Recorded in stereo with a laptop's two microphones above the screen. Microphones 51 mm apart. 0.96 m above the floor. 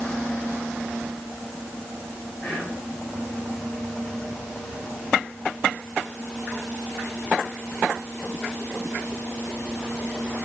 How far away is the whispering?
About 6 m.